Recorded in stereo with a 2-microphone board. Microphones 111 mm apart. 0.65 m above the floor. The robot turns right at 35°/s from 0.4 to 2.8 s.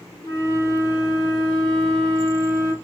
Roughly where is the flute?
Ahead left.